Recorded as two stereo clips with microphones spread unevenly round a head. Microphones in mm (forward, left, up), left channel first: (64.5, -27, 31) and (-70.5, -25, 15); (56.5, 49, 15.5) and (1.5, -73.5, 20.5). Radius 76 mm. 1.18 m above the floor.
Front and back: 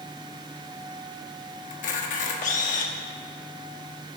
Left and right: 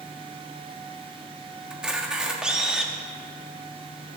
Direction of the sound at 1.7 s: 30° right.